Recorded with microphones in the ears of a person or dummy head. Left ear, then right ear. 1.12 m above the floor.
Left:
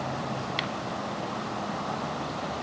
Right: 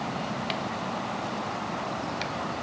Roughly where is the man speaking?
No man speaking in this recording.